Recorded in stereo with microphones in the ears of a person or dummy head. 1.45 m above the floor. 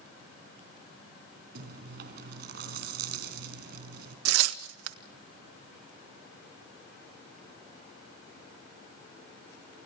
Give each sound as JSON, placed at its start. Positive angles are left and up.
{"t": 1.6, "sound": "chewing", "side_deg": -60, "distance_m": 5.0}
{"t": 4.2, "sound": "tearing paper", "side_deg": -90, "distance_m": 1.4}